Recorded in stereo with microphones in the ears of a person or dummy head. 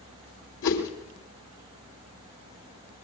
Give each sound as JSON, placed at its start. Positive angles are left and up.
{"t": 0.6, "sound": "a whoosh", "side_deg": 70, "distance_m": 3.0}